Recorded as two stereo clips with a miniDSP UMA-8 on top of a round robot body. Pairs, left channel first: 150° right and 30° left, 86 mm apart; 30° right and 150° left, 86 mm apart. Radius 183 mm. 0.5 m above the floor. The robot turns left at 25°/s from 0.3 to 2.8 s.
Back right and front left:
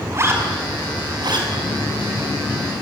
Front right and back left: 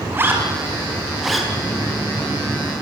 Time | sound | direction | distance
0.1 | a zipper | 85° left | 5.5 m